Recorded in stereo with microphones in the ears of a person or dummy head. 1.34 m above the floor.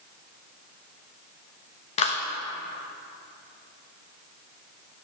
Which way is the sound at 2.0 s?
40° left (ahead or behind).